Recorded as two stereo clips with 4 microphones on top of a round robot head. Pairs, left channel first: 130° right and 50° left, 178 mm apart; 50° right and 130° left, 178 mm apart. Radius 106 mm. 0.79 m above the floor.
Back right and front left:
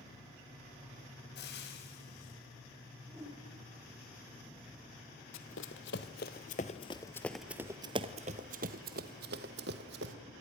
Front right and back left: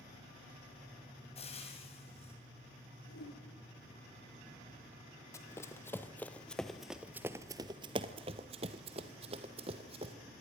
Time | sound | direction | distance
1.4 | frying | 105° right | 5.5 m
3.1 | a whoosh | 25° right | 9 m
5.3 | running footsteps | 120° right | 1.4 m